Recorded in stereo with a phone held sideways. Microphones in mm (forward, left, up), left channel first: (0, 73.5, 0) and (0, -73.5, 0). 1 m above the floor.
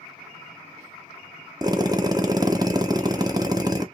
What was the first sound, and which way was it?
A drill, 25° right (ahead or behind).